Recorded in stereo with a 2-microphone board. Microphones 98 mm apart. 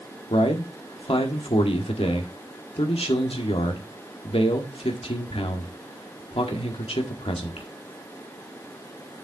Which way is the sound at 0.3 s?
75° left (ahead or behind).